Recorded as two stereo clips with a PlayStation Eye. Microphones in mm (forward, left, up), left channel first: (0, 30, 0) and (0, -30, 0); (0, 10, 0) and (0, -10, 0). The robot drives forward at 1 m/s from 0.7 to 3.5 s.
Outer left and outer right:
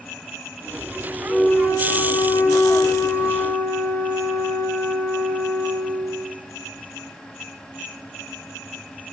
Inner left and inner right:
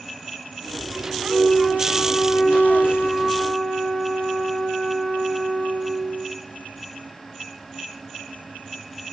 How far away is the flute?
About 1.8 m.